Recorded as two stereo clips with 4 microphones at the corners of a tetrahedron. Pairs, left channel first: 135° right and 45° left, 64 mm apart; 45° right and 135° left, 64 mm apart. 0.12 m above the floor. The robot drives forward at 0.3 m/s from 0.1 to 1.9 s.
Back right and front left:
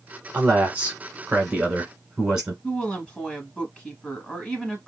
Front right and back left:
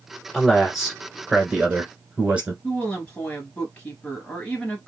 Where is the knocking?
No knocking in this recording.